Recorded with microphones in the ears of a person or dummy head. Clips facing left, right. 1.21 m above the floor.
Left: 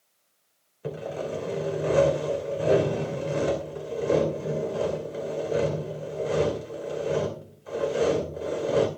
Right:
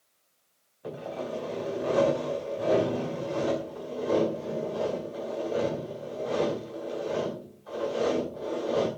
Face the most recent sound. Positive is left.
turn(degrees=40)  # may be behind; listen again after turning